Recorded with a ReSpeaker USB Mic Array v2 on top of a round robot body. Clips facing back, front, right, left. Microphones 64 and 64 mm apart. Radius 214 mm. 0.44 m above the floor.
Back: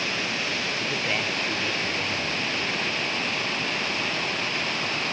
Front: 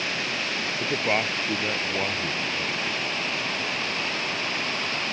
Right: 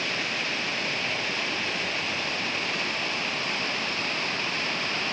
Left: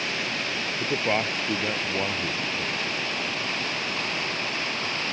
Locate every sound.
0.8 s a man speaking: 55° left; by 2.9 s 60° left